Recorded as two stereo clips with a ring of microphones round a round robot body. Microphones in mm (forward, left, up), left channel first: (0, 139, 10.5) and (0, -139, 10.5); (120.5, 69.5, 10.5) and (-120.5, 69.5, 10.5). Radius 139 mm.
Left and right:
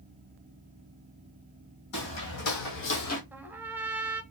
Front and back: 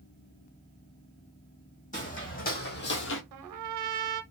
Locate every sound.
1.9 s footsteps: 60° left, 1.7 m; by 3.2 s 30° left, 0.8 m
3.3 s a trumpet: 175° right, 0.5 m